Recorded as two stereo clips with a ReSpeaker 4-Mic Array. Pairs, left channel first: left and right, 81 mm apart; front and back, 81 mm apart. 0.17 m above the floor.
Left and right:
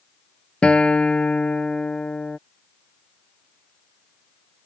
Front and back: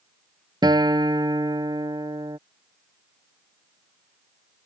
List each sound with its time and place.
0.6 s a guitar: 165° left